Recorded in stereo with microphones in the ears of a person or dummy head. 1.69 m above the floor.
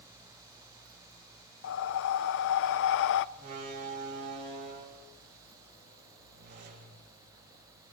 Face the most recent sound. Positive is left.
turn(degrees=-60)  # may be behind; listen again after turning